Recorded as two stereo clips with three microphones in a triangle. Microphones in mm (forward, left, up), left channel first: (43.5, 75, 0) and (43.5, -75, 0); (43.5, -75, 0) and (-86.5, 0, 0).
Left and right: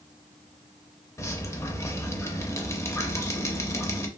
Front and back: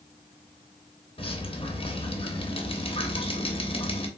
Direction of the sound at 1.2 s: 15° left.